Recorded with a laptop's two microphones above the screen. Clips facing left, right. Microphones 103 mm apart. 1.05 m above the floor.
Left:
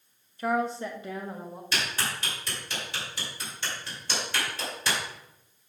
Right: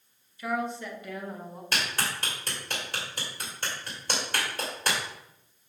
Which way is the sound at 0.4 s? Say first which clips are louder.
Left 4 dB; 40° left (ahead or behind).